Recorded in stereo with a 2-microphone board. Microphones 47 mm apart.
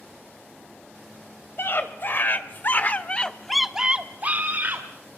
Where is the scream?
55° left (ahead or behind), 2.5 m; by 4.8 s 50° right (ahead or behind), 1.8 m.